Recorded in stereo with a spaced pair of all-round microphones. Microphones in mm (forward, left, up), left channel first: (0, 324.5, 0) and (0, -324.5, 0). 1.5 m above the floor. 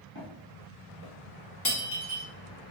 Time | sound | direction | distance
0.1 | footsteps | 10° right (ahead or behind) | 1.8 m
1.6 | breaking glass | 30° left (ahead or behind) | 0.7 m